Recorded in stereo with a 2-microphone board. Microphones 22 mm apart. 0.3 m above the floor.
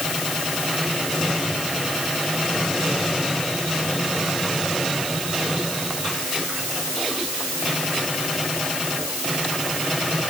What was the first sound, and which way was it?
Only background noise.